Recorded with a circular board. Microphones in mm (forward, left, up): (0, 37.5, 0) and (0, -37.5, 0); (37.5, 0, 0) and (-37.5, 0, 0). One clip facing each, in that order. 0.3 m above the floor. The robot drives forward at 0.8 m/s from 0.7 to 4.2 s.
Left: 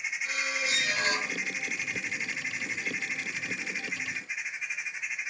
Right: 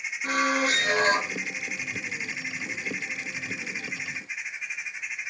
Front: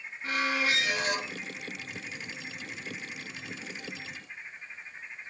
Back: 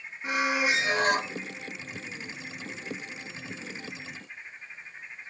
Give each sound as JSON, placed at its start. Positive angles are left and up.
{"t": 0.2, "sound": "a squeak", "azimuth_deg": -110, "distance_m": 0.6}